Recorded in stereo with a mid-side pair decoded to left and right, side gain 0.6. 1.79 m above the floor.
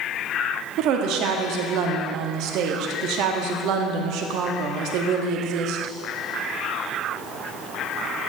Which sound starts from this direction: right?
A woman speaking, at 0.8 s.